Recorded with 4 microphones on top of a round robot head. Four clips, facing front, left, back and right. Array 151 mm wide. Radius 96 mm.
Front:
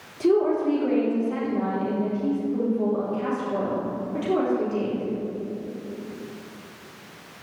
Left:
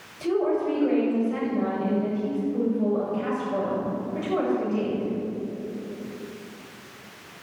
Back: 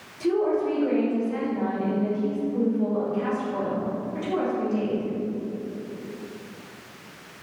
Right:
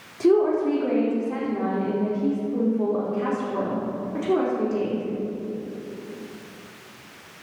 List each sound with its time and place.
0.2 s a woman speaking: 60° right, 5.5 m